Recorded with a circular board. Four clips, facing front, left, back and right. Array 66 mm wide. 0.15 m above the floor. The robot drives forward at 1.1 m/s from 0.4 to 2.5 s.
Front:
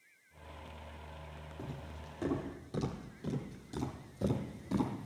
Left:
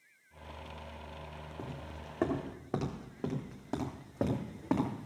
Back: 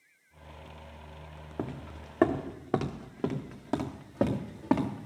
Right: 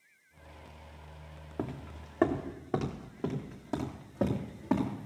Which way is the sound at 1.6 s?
140° right.